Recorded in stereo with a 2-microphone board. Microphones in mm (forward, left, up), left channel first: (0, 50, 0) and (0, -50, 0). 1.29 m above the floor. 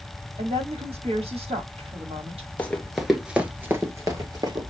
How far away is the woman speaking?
About 1.6 m.